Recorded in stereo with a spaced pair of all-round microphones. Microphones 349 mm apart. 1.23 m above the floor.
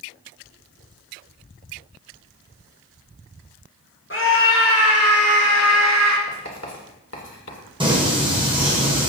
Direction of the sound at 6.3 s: 45° left (ahead or behind).